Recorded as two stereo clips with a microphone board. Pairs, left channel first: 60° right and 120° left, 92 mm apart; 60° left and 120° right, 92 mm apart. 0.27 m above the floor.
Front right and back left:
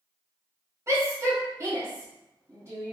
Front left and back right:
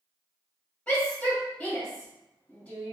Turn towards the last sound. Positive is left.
turn(degrees=120)